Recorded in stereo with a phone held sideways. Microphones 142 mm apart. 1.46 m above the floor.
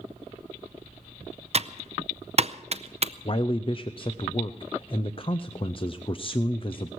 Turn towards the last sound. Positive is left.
turn(degrees=40)  # may be behind; listen again after turning